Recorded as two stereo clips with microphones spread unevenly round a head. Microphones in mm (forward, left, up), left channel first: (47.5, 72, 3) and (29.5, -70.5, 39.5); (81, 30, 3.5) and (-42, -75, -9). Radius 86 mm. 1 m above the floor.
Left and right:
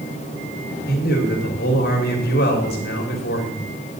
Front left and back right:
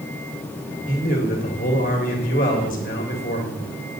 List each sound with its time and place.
0.9 s a man speaking: 90° left, 2.5 m